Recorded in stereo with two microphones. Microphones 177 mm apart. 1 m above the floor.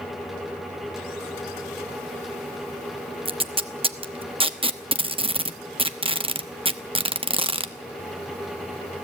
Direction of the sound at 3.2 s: 30° right (ahead or behind).